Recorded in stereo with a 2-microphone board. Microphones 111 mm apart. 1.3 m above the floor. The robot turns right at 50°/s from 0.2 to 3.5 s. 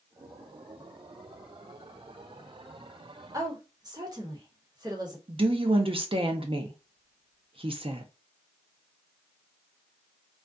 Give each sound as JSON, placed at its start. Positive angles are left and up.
{"t": 3.3, "sound": "a woman speaking", "side_deg": -30, "distance_m": 1.0}
{"t": 5.3, "sound": "a woman speaking", "side_deg": -50, "distance_m": 0.6}